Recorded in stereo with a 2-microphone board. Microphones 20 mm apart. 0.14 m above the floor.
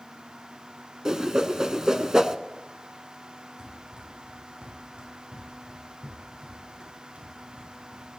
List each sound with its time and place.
1.1 s a whoosh: 30° right (ahead or behind), 0.6 m
3.6 s running footsteps: 30° right (ahead or behind), 4 m; by 8.1 s 85° right, 6.5 m